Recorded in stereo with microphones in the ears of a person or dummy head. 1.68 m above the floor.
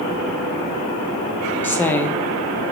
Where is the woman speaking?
15° left (ahead or behind), 0.6 m.